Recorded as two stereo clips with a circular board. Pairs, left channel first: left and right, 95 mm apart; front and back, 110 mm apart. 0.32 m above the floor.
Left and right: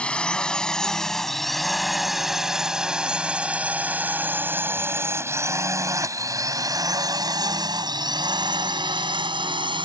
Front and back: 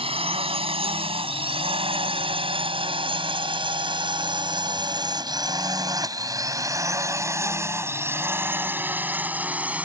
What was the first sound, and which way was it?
A drone, 165° left.